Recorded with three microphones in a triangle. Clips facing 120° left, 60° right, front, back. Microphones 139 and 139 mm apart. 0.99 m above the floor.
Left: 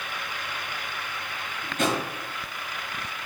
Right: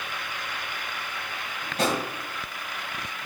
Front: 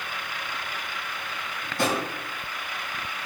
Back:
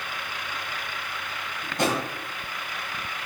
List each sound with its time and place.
1.6 s a drawer: 115° right, 1.5 m